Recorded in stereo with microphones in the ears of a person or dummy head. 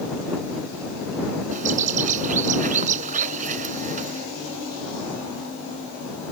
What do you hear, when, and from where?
1.5 s a bird: 40° right (ahead or behind)